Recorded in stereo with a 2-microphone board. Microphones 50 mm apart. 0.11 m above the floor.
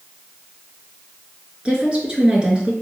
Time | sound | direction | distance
1.6 | a woman speaking | 20° right (ahead or behind) | 1.1 m